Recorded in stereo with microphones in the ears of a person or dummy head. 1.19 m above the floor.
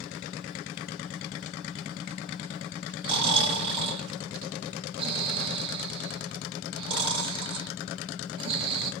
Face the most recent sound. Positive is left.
turn(degrees=-35)  # may be behind; listen again after turning